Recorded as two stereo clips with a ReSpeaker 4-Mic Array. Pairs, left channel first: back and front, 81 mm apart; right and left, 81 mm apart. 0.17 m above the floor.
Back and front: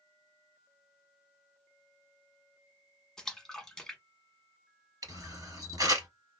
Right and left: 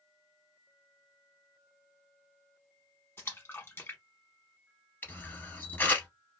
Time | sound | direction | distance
3.2 | a splash | 105° right | 0.9 m
5.0 | a camera shutter | 30° right | 1.3 m